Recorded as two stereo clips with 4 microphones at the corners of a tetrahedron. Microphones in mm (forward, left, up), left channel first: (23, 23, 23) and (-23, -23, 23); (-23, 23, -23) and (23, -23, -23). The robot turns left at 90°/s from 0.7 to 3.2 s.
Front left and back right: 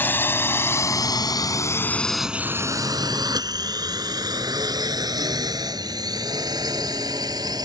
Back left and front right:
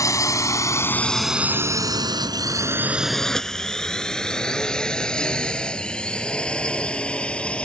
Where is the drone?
105° left; by 7.7 s 150° right.